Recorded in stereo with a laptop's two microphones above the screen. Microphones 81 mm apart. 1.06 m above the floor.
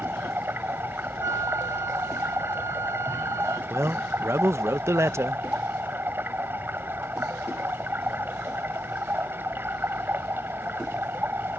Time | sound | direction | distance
0.0 | running water | 25° right (ahead or behind) | ?
1.2 | a flute | 45° right (ahead or behind) | ?
3.7 | a man speaking | 35° right (ahead or behind) | ?